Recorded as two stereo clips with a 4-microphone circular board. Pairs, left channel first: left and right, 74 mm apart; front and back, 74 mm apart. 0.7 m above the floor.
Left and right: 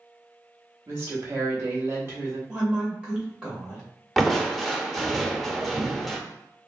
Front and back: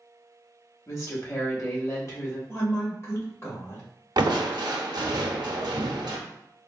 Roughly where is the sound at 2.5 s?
Ahead.